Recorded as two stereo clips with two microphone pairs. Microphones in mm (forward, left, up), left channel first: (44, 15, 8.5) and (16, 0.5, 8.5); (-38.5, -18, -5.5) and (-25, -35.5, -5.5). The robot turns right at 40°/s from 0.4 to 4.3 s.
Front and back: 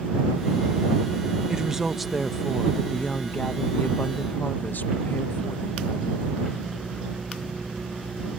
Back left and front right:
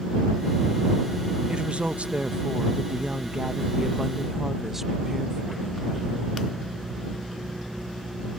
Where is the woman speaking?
90° right; by 6.5 s 25° left.